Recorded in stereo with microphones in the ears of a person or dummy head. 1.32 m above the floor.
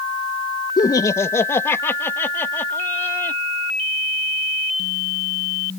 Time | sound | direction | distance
0.8 | laughter | 20° left (ahead or behind) | ?